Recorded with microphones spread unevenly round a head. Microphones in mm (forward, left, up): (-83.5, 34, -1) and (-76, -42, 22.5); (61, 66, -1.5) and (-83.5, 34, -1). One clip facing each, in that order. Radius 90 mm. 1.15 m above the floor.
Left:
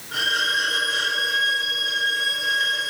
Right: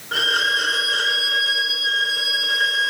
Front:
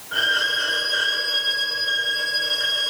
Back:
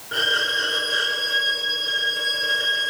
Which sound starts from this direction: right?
A violin, at 0.1 s.